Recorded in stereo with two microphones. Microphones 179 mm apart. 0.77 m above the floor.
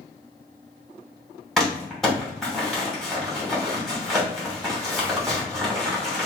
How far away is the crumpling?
About 2.5 m.